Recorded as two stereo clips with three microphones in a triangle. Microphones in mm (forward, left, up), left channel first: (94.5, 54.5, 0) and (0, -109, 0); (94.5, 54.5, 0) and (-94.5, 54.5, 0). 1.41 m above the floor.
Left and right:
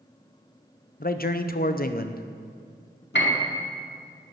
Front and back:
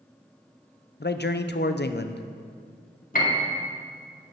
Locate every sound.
1.0 s a man speaking: 25° left, 0.8 m
3.1 s a piano: 40° left, 2 m